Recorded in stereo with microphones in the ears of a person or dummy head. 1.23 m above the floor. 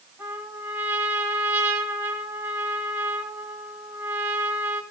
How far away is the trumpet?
About 4 m.